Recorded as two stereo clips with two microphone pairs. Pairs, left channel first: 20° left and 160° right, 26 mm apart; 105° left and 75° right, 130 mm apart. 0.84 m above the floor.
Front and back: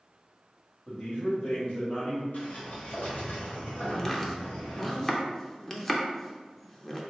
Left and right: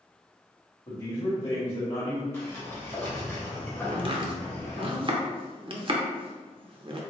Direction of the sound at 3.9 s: 50° right.